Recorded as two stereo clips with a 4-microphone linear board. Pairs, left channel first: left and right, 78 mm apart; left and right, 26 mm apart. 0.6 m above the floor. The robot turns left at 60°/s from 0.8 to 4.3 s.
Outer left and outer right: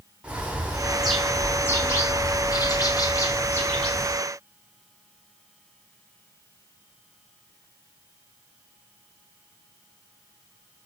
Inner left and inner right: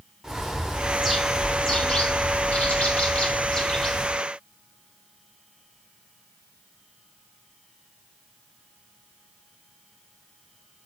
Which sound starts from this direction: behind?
A bird, at 0.2 s.